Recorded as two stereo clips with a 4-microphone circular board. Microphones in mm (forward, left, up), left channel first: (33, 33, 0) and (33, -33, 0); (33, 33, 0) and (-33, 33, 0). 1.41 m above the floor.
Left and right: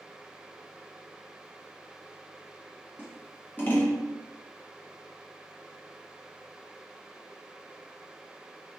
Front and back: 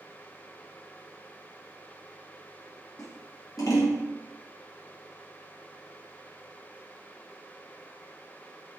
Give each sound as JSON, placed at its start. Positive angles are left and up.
{"t": 3.0, "sound": "scissors", "azimuth_deg": 30, "distance_m": 0.8}